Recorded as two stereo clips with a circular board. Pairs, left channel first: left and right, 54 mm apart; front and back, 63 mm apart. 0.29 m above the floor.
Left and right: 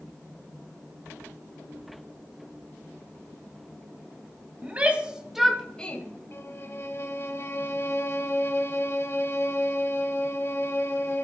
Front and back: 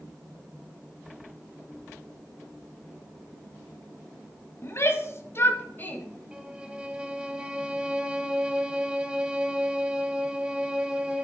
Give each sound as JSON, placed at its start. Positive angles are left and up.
{"t": 4.6, "sound": "a shout", "azimuth_deg": -35, "distance_m": 1.6}
{"t": 6.3, "sound": "a violin", "azimuth_deg": 110, "distance_m": 1.0}